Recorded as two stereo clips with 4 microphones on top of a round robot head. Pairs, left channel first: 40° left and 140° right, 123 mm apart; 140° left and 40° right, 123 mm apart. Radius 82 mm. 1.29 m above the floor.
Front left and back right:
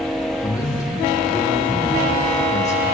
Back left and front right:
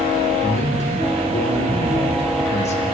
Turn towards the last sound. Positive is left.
turn(degrees=105)